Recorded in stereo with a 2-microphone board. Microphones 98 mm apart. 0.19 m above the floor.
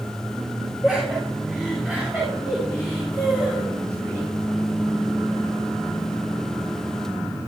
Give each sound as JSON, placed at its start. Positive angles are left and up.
{"t": 0.8, "sound": "laughter", "side_deg": -10, "distance_m": 4.5}